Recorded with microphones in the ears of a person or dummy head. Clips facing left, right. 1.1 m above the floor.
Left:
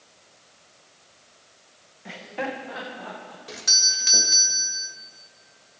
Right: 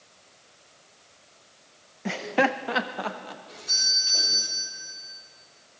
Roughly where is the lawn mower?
No lawn mower in this recording.